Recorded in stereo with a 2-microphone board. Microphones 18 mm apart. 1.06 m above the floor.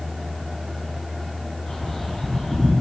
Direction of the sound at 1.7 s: 40° left (ahead or behind).